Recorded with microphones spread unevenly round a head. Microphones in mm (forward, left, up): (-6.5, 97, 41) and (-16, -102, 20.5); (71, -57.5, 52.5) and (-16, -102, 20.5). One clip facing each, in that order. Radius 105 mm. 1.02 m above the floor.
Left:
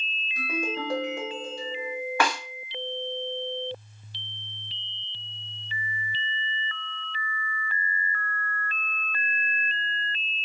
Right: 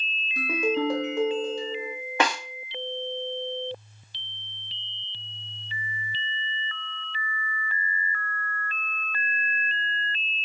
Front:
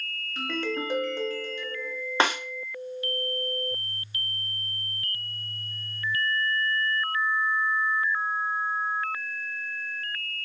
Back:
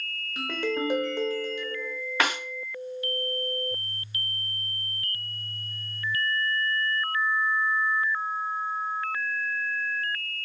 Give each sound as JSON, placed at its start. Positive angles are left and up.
{"t": 0.4, "sound": "a ringtone", "azimuth_deg": -70, "distance_m": 0.9}
{"t": 2.2, "sound": "a snare drum", "azimuth_deg": -20, "distance_m": 0.5}